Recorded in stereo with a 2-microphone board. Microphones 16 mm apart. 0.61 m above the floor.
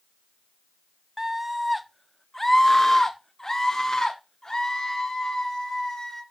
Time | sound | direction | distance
1.2 | a scream | 30° right (ahead or behind) | 0.7 m